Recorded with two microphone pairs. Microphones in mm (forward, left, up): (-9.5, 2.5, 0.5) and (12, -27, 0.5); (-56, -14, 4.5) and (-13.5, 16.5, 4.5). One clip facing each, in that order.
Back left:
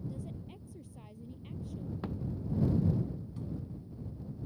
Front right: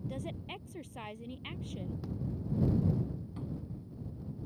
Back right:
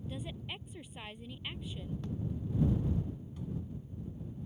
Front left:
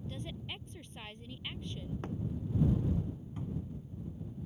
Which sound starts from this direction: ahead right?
A woman speaking, at 0.1 s.